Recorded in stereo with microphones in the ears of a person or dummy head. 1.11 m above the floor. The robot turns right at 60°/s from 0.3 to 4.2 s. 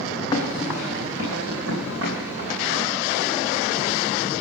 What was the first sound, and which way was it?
Running footsteps, 20° left (ahead or behind).